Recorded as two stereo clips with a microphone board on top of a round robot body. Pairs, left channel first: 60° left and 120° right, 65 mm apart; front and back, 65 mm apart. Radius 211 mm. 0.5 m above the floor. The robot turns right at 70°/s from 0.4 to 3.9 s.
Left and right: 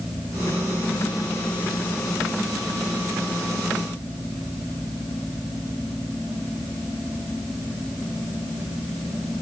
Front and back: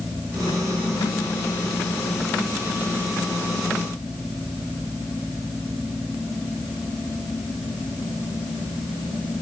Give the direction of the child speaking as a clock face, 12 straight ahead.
No child speaking in this recording.